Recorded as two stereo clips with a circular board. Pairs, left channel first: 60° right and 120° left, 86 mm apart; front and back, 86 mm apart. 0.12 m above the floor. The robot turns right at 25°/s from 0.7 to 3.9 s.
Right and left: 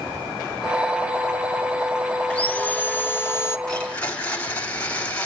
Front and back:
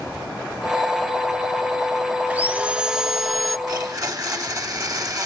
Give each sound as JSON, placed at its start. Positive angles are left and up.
{"t": 2.3, "sound": "sawing", "azimuth_deg": -125, "distance_m": 0.6}
{"t": 3.7, "sound": "a blender", "azimuth_deg": -140, "distance_m": 3.0}